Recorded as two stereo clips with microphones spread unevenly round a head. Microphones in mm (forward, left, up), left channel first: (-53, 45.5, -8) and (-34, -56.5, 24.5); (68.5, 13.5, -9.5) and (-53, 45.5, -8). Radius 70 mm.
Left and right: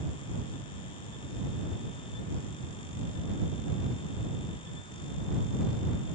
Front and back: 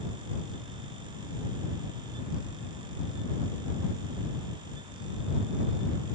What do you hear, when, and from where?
Only background noise.